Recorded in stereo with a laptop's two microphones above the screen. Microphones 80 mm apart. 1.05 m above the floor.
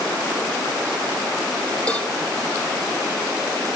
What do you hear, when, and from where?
1.9 s a cowbell: 15° left (ahead or behind), 3.5 m